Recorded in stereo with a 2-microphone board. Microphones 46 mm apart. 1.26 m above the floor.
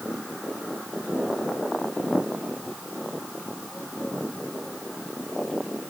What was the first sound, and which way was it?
Only background noise.